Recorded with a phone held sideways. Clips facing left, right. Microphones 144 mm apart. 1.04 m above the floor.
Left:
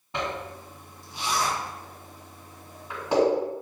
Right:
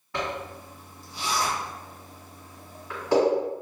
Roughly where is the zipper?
Left.